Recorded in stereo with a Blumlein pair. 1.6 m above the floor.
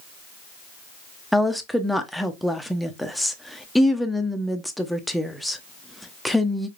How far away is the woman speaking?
About 0.7 m.